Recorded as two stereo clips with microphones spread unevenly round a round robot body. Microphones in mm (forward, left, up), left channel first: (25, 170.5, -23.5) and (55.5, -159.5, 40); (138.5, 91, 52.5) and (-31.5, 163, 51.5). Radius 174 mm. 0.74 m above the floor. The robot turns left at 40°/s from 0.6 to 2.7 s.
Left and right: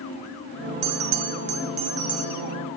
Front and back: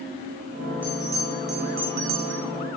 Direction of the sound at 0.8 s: 115° right.